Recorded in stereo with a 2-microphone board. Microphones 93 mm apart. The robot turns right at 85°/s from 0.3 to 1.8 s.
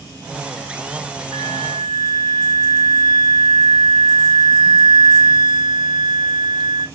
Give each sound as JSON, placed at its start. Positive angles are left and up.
{"t": 1.3, "sound": "a flute", "azimuth_deg": -110, "distance_m": 1.2}